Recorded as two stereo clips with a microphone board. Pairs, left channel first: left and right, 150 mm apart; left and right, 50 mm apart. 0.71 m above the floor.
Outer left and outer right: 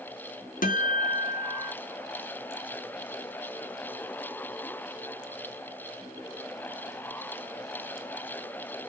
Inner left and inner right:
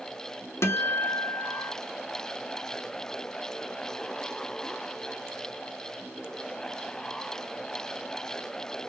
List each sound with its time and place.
0.6 s a guitar: 65° left (ahead or behind), 0.6 m